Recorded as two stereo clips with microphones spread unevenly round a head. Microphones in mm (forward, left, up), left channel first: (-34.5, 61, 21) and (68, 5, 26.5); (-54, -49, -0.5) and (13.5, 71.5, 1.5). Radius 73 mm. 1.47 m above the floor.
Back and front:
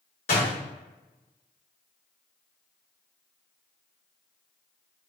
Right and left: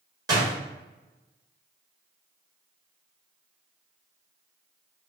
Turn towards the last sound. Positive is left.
turn(degrees=120)